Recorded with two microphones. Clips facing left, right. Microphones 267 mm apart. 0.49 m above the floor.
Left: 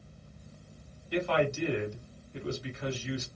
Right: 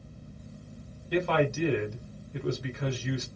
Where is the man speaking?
55° right (ahead or behind), 1.4 m.